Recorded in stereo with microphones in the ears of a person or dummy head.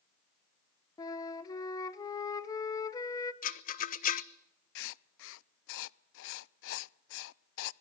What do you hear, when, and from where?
1.0 s a flute: 25° left (ahead or behind), 1.2 m
3.4 s a rattle: 35° left (ahead or behind), 0.7 m
4.8 s writing: 70° left (ahead or behind), 0.6 m